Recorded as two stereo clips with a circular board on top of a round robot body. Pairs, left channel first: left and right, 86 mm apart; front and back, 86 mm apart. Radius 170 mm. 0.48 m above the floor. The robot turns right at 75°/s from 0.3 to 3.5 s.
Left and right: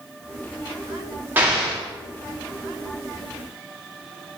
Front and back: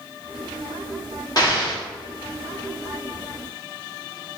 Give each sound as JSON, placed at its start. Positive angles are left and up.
{"t": 1.4, "sound": "an explosion", "azimuth_deg": -25, "distance_m": 1.2}